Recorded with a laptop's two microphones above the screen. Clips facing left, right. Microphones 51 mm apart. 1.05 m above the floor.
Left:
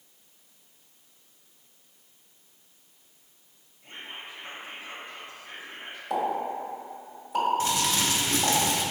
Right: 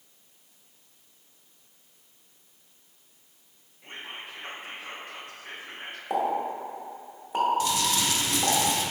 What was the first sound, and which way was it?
Whispering, 60° right (ahead or behind).